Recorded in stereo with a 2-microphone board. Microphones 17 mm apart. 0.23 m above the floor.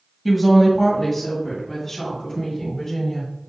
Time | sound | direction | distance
0.2 | a woman speaking | centre (ahead or behind) | 1.5 m